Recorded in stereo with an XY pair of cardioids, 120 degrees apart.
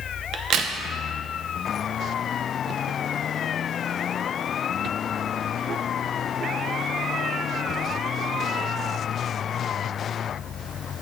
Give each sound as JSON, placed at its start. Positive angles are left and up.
{"t": 0.3, "sound": "a crack", "azimuth_deg": -65, "distance_m": 0.6}